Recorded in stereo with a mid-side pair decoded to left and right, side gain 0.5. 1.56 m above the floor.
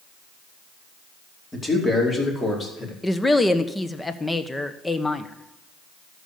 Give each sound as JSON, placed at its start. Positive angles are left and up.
{"t": 1.5, "sound": "a man speaking", "azimuth_deg": 20, "distance_m": 4.5}
{"t": 3.0, "sound": "a woman speaking", "azimuth_deg": 15, "distance_m": 1.2}